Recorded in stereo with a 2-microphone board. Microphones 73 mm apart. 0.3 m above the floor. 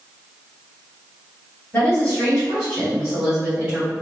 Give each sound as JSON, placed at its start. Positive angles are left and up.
{"t": 1.7, "sound": "a woman speaking", "side_deg": 25, "distance_m": 1.9}